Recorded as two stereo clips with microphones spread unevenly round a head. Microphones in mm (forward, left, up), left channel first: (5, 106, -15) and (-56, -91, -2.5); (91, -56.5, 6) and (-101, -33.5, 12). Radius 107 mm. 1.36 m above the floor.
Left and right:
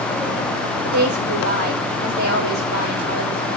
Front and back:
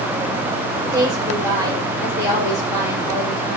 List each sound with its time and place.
0.8 s a woman speaking: 115° right, 4.5 m